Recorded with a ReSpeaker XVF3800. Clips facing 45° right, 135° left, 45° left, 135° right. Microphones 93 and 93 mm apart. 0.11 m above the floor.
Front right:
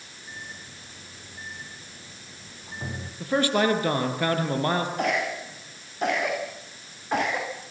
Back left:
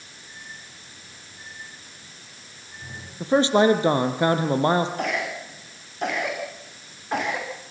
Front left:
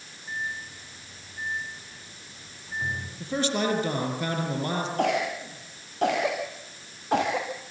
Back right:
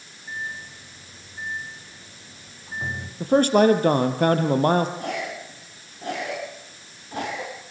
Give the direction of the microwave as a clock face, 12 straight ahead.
2 o'clock.